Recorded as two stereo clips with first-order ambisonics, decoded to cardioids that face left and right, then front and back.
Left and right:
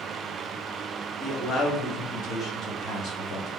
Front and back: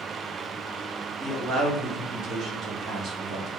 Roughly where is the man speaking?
Behind left.